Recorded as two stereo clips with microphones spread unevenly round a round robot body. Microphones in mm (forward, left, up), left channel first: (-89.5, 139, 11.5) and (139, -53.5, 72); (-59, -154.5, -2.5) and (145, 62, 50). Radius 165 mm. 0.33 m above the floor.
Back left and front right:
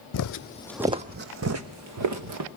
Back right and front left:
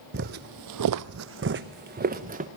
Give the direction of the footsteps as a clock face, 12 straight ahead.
9 o'clock.